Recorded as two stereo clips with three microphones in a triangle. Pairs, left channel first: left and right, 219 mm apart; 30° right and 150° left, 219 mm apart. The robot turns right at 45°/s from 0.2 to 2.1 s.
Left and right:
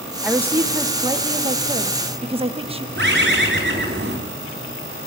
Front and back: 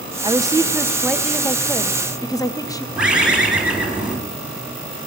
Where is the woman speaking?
170° right, 0.7 m; by 2.9 s 85° right, 0.7 m.